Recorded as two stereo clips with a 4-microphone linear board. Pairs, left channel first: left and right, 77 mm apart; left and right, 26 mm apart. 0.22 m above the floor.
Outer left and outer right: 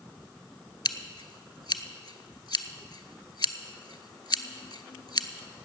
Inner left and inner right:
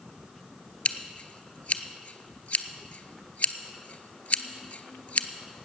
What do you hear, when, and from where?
0.8 s scissors: 70° left (ahead or behind), 0.6 m